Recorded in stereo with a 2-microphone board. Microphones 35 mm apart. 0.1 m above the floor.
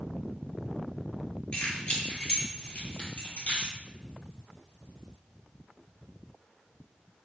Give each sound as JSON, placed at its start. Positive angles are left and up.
{"t": 1.5, "sound": "keys jangling", "side_deg": 40, "distance_m": 1.4}